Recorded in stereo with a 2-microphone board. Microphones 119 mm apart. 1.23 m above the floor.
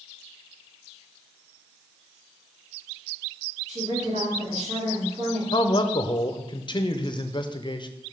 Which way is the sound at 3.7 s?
75° right (ahead or behind).